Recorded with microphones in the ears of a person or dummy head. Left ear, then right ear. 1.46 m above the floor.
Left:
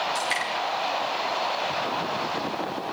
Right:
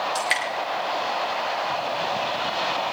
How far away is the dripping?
About 3 m.